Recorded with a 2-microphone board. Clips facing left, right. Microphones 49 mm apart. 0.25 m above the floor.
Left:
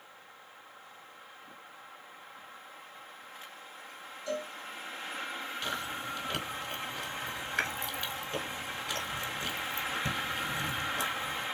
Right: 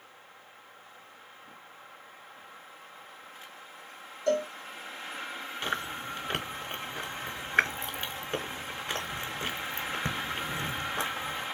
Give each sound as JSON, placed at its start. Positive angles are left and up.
{"t": 4.3, "sound": "a cowbell", "side_deg": -60, "distance_m": 0.7}
{"t": 5.6, "sound": "chewing", "side_deg": -35, "distance_m": 1.5}